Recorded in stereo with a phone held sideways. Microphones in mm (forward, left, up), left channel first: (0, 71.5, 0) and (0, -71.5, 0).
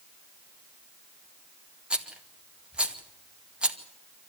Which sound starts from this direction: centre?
A rattle, at 1.9 s.